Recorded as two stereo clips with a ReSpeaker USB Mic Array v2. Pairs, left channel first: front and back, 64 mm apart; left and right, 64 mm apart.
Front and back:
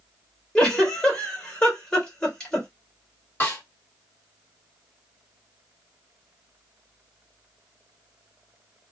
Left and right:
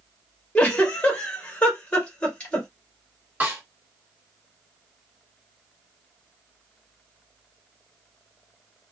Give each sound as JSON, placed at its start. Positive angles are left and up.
{"t": 0.6, "sound": "a giggle", "azimuth_deg": 60, "distance_m": 1.1}
{"t": 3.4, "sound": "a snare drum", "azimuth_deg": -35, "distance_m": 1.6}